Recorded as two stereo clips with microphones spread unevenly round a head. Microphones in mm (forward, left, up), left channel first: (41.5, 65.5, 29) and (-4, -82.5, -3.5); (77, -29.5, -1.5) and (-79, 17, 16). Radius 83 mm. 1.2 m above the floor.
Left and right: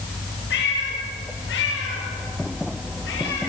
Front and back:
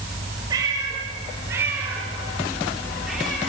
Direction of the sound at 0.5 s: 95° left.